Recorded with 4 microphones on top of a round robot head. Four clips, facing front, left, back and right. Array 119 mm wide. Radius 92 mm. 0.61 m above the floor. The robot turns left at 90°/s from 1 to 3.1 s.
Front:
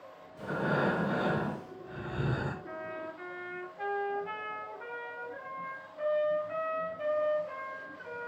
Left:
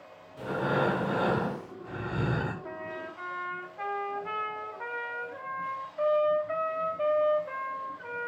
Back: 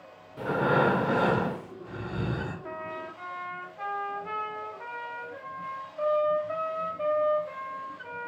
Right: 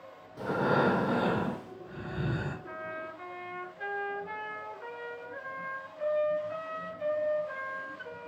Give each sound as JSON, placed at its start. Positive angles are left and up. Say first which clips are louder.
{"t": 0.4, "sound": "breathing", "louder": "right 1 dB, back 6 dB", "azimuth_deg": -155, "distance_m": 1.9}
{"t": 2.6, "sound": "a trumpet", "louder": "left 1 dB, back 3 dB", "azimuth_deg": 150, "distance_m": 5.5}